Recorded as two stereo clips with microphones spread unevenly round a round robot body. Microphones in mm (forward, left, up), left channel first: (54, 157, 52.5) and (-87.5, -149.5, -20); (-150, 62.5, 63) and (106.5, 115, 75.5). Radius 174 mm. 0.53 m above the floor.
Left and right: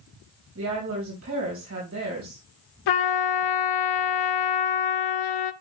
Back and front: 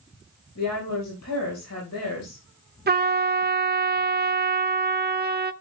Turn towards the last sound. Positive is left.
turn(degrees=60)